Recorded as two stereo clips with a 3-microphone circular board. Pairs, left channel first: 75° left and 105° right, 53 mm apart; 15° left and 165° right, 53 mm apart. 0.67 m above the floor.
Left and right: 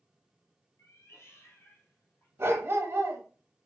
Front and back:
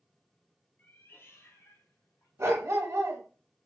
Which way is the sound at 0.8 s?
65° left.